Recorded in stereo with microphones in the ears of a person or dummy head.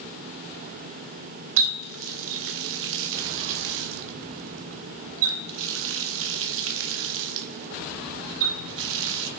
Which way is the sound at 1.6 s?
70° right (ahead or behind).